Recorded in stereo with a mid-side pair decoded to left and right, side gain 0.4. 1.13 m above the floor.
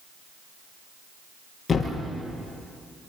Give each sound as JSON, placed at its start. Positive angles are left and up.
{"t": 1.7, "sound": "a thud", "azimuth_deg": 35, "distance_m": 7.0}